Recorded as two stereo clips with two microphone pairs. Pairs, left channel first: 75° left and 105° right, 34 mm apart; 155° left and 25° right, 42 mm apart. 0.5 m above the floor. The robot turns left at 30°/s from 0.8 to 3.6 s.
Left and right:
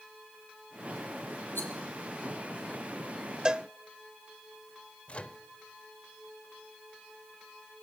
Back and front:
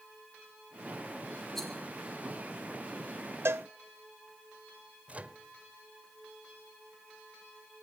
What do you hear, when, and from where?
1.6 s a rattle: 75° left, 7 m; by 1.7 s 70° left, 7 m
3.5 s a cowbell: 35° right, 0.6 m; by 3.7 s 40° right, 0.6 m
5.1 s a microwave: 25° left, 1.1 m